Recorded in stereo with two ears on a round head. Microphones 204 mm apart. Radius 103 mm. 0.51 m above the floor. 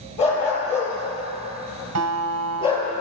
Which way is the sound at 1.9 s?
65° right (ahead or behind).